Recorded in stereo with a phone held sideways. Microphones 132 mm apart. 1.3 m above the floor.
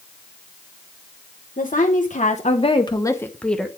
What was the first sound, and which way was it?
A woman speaking, 80° left.